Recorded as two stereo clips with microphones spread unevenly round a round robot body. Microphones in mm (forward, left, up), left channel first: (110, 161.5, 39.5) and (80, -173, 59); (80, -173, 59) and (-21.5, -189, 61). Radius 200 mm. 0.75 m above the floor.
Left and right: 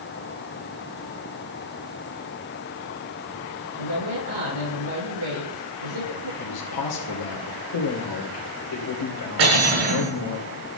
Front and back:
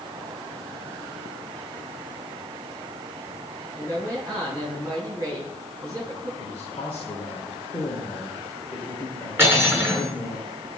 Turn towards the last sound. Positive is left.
turn(degrees=-105)